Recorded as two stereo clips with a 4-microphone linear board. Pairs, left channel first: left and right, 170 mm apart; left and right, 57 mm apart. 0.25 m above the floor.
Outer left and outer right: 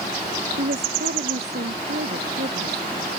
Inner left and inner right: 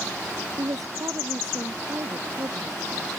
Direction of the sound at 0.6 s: 80° right.